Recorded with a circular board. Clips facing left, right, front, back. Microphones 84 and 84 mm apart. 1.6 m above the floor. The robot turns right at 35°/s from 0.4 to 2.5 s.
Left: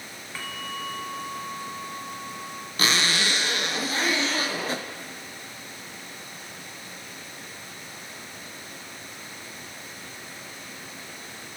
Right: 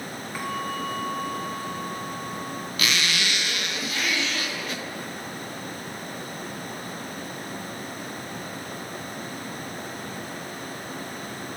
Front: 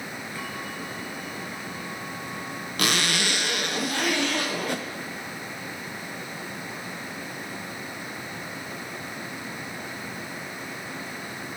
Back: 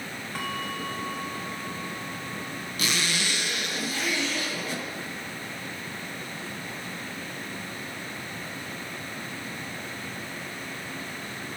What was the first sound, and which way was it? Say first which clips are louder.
A bell: right 5 dB, back 5 dB; 165° right.